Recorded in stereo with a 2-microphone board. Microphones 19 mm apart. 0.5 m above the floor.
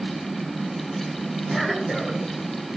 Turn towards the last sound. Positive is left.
turn(degrees=10)  # may be behind; listen again after turning